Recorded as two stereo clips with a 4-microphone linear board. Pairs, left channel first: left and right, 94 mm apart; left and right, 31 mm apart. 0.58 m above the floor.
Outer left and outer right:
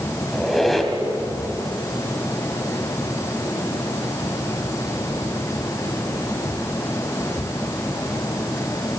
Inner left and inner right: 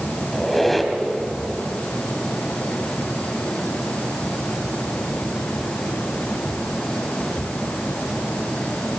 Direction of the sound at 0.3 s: Centre (ahead or behind).